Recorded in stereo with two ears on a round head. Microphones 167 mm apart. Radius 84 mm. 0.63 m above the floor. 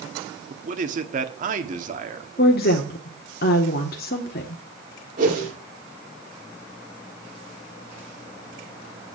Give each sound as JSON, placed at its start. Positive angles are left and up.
{"t": 0.5, "sound": "a man speaking", "side_deg": -45, "distance_m": 1.7}
{"t": 2.4, "sound": "a woman speaking", "side_deg": 55, "distance_m": 1.5}
{"t": 5.2, "sound": "a whoosh", "side_deg": -45, "distance_m": 6.5}